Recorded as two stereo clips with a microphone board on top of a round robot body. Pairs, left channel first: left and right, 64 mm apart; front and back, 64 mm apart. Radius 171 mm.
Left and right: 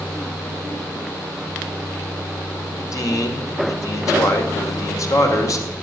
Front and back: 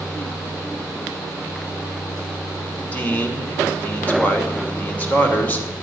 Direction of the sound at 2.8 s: 60° left.